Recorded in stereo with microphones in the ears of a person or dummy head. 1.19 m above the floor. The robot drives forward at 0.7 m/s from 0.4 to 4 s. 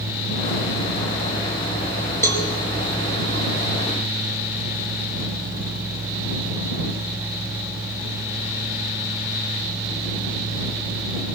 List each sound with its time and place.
2.2 s a cowbell: 20° left (ahead or behind), 3 m